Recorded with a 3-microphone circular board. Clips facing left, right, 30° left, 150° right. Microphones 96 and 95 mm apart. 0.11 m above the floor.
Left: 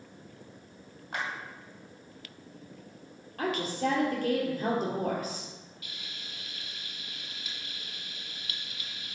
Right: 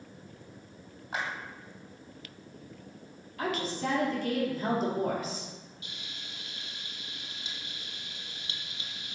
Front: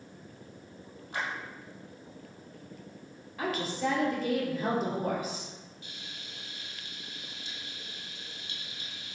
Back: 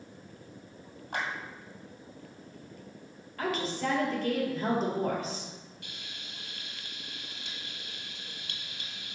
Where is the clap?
175° right, 2.5 m.